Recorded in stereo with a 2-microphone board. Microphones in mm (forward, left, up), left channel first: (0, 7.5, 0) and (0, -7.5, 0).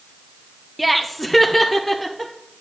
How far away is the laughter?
About 0.7 m.